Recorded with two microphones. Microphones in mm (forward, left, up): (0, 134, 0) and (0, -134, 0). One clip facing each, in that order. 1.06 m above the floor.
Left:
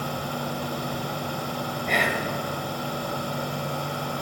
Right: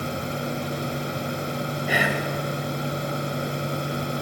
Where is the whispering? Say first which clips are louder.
Right 1 dB; 5° right (ahead or behind), 1.0 m.